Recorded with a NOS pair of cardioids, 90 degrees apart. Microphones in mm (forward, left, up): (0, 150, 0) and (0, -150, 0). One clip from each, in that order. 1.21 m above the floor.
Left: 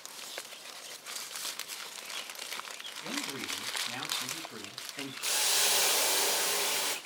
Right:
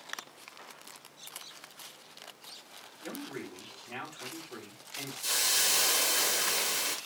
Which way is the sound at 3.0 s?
10° left.